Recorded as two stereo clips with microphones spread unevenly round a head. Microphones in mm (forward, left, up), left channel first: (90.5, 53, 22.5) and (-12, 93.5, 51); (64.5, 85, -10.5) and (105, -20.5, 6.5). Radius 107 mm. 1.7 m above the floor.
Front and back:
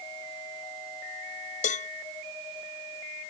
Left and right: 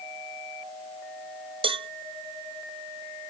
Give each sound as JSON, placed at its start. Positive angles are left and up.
{"t": 1.6, "sound": "a cowbell", "azimuth_deg": -35}